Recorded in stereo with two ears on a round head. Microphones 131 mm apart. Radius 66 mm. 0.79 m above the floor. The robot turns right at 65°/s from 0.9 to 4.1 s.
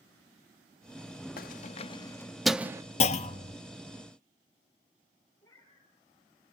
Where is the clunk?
75° left, 0.9 m; by 3.6 s 110° left, 0.9 m.